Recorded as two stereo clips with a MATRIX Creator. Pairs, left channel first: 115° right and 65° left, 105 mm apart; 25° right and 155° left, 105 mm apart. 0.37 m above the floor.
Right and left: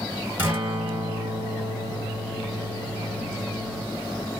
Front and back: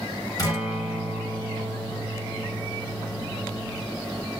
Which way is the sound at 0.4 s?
10° left.